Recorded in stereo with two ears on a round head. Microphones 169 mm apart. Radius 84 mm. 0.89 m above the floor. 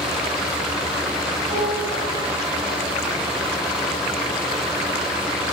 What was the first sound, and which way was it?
A piano, 25° right (ahead or behind).